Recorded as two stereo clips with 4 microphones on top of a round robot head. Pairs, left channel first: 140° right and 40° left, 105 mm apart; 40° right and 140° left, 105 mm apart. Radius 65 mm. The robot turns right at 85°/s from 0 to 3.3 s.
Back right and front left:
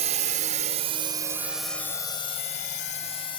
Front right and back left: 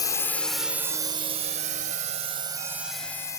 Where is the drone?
15° left; by 3.4 s 100° right.